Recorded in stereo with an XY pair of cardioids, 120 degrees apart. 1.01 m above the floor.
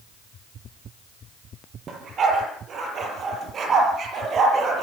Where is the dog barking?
45° right, 7 m.